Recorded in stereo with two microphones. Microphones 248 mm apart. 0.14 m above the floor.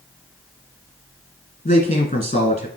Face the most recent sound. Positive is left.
turn(degrees=25)  # may be behind; listen again after turning